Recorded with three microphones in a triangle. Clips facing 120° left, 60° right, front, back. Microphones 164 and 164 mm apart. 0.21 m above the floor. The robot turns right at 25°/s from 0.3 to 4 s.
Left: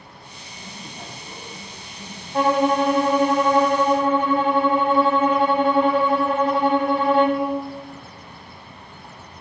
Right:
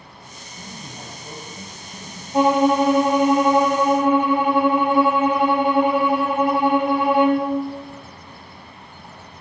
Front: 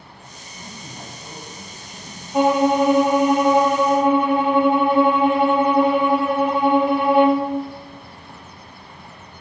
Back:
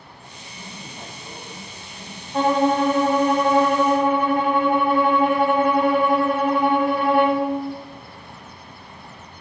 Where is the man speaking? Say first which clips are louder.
Right 1 dB, front 1 dB; 100° right, 1.5 m; by 2.2 s 55° right, 1.5 m.